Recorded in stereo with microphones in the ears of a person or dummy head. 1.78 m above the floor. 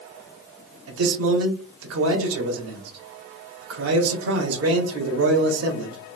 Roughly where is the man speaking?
Right.